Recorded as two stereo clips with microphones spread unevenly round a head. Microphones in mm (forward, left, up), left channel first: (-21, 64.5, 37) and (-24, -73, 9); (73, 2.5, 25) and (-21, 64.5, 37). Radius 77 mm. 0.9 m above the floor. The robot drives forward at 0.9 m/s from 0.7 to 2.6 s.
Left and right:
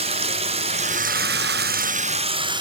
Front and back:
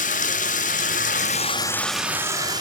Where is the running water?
40° right, 0.9 m; by 2.6 s 150° right, 1.1 m.